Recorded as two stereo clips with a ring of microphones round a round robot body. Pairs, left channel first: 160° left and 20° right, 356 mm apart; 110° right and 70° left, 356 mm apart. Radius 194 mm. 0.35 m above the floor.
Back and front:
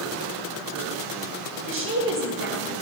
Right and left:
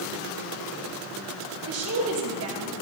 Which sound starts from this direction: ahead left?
A woman speaking, at 1.7 s.